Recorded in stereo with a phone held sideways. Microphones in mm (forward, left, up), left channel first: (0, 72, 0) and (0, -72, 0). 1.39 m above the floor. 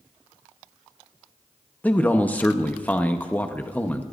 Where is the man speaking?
10° left (ahead or behind), 0.9 m.